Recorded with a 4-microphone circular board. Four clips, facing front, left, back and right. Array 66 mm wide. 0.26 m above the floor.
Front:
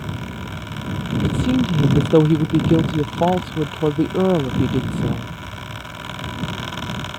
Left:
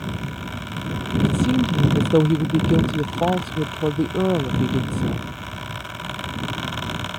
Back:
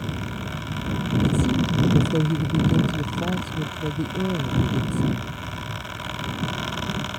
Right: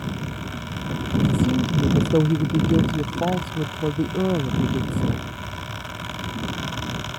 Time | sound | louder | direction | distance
1.2 | a woman speaking | left 2 dB, front 5 dB | 10° left | ?